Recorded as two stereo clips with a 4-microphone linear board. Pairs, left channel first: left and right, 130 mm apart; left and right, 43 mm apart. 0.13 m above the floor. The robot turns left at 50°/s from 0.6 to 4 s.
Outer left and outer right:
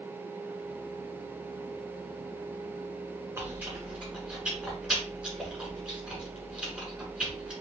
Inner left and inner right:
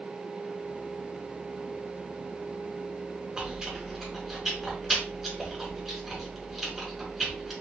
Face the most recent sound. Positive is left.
turn(degrees=-5)  # may be behind; listen again after turning